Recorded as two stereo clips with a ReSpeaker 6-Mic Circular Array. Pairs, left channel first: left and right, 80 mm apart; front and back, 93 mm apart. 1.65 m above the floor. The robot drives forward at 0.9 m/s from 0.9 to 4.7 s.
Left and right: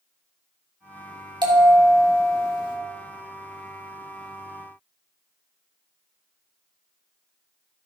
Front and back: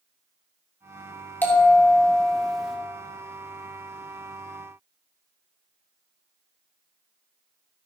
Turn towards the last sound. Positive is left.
turn(degrees=-125)